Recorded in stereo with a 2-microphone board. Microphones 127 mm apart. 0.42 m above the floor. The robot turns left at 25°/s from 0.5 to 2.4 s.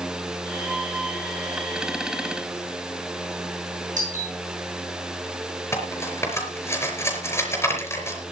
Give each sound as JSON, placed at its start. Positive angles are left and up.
{"t": 4.0, "sound": "a doorbell", "side_deg": -80, "distance_m": 8.5}
{"t": 5.7, "sound": "cutlery clinking", "side_deg": 20, "distance_m": 4.5}